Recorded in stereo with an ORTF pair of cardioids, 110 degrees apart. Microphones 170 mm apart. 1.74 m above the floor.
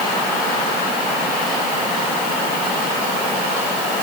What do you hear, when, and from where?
Only background noise.